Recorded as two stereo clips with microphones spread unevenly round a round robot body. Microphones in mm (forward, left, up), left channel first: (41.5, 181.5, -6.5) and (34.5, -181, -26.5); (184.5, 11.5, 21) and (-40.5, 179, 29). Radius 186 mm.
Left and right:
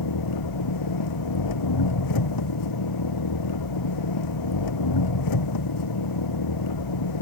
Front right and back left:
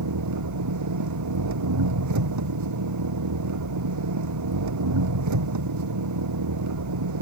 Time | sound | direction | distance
0.0 | an engine running | 130° left | ?